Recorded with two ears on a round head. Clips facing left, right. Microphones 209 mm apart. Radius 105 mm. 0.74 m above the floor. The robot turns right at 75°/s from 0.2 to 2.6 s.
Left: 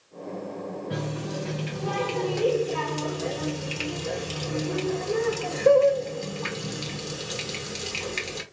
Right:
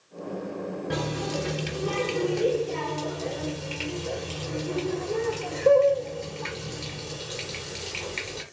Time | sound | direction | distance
0.9 | a running tap | 110° right | 1.5 m